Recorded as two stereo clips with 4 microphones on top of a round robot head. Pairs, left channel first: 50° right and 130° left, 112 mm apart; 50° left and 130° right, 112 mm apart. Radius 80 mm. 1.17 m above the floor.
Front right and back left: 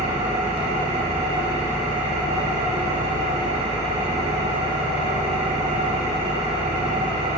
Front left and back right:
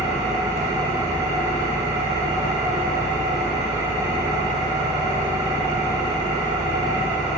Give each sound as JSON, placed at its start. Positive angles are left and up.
{"t": 0.0, "sound": "an engine running", "azimuth_deg": 165, "distance_m": 2.5}